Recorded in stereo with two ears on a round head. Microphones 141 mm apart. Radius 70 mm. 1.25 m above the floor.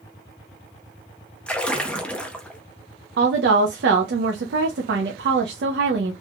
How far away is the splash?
About 0.5 m.